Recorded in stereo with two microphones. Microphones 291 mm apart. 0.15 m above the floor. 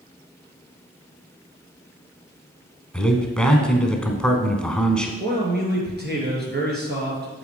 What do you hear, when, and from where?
2.9 s a man speaking: 5° left (ahead or behind), 1.0 m
5.2 s a man speaking: 35° right (ahead or behind), 3 m